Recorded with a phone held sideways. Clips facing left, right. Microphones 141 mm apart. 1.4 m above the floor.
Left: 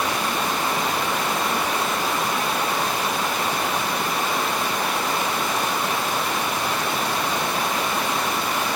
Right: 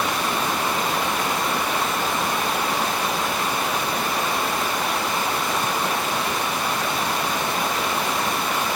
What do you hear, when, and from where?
Only background noise.